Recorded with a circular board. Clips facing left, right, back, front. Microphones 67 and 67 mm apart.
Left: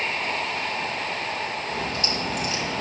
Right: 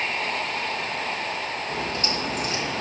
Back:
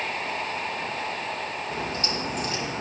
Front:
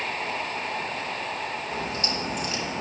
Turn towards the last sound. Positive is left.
turn(degrees=-135)